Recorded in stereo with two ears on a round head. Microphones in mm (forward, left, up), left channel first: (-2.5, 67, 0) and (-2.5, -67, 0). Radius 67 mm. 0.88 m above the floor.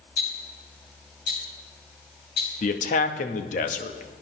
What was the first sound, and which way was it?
Ticking, 75° left (ahead or behind).